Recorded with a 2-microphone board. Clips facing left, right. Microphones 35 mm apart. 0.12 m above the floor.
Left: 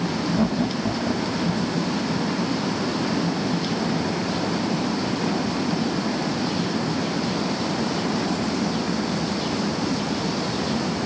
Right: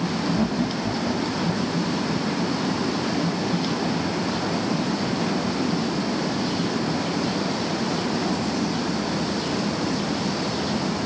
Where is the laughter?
10° left (ahead or behind); by 1.8 s 5° left (ahead or behind).